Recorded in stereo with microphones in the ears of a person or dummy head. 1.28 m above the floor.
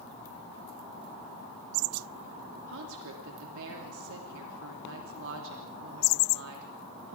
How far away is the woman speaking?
About 3 m.